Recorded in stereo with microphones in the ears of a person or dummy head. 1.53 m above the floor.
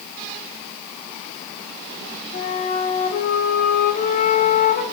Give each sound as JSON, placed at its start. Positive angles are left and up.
{"t": 2.3, "sound": "a flute", "side_deg": 45, "distance_m": 0.9}